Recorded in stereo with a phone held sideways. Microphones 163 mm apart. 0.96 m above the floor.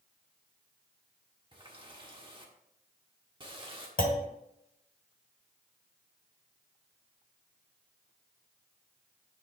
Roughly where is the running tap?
Right.